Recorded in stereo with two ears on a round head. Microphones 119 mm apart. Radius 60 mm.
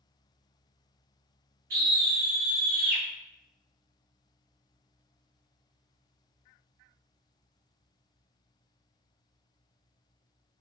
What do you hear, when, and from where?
1.7 s a scream: 70° right (ahead or behind), 1.4 m